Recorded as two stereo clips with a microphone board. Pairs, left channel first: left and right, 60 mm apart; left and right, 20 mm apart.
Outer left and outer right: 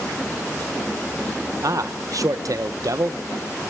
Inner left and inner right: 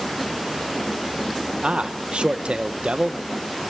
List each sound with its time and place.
1.6 s a man speaking: 65° right (ahead or behind), 0.7 m